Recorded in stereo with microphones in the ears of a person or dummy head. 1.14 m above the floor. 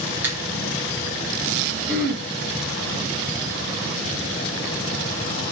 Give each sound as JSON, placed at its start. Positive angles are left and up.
{"t": 0.2, "sound": "a finger snap", "side_deg": -10, "distance_m": 1.1}
{"t": 1.9, "sound": "throat clearing", "side_deg": -65, "distance_m": 2.0}